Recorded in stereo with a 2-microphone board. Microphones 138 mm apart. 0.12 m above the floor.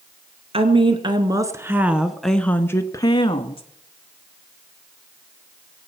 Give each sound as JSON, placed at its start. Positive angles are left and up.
{"t": 0.5, "sound": "a woman speaking", "side_deg": -45, "distance_m": 1.5}